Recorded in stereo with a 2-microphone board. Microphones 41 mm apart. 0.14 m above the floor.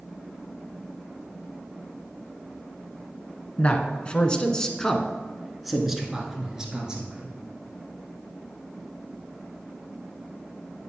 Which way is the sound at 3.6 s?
35° left (ahead or behind).